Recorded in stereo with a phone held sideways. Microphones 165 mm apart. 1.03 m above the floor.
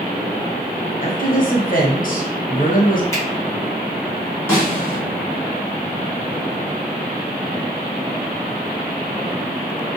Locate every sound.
1.0 s a woman speaking: 55° left (ahead or behind), 0.7 m
3.1 s a finger snap: 20° left (ahead or behind), 0.9 m
4.5 s a snare drum: 15° left (ahead or behind), 1.3 m